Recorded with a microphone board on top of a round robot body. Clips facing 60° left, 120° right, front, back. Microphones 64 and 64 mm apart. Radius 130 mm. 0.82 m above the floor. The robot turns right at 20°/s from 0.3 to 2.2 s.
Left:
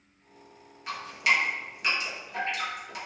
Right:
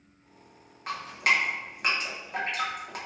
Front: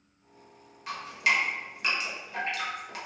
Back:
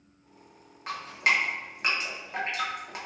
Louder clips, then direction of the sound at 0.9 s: Even, back 1 dB; 150° right.